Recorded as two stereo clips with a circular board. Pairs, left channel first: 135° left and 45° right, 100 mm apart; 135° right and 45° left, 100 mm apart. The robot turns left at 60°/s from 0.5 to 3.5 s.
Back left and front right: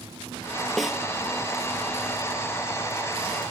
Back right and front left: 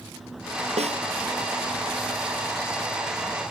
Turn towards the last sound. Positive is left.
turn(degrees=-115)